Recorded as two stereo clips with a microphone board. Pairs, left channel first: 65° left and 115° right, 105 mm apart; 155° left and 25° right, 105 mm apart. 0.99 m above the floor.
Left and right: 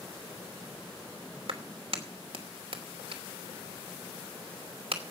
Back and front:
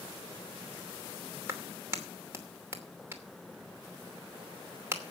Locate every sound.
1.5 s a clap: 90° right, 2.5 m